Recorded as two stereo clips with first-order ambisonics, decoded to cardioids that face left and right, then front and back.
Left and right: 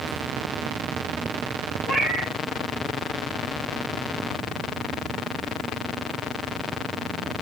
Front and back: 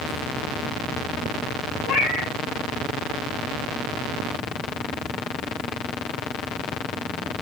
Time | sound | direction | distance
1.9 | a cat meowing | 25° right | 8 m